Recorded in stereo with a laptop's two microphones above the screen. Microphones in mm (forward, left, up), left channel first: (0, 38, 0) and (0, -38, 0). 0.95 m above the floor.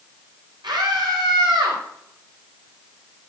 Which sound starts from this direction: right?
A scream, at 0.6 s.